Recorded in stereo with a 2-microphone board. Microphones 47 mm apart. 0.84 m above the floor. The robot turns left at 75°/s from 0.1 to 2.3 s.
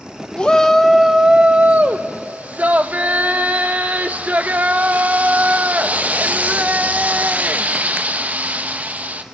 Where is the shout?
35° left, 0.7 m; by 9.2 s 110° right, 0.7 m.